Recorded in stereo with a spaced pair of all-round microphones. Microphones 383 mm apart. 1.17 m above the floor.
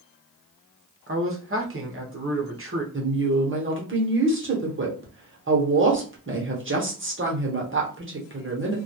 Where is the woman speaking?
30° right (ahead or behind), 0.9 m.